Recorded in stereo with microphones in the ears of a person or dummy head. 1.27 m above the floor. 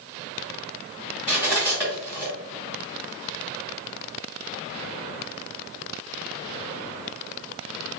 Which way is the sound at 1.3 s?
15° right (ahead or behind).